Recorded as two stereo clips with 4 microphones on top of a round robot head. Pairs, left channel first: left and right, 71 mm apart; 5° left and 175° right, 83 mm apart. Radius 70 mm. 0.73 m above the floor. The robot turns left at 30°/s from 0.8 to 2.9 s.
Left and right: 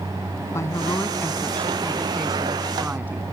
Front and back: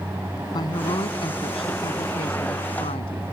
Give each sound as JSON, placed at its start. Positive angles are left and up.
{"t": 0.5, "sound": "a woman speaking", "azimuth_deg": 40}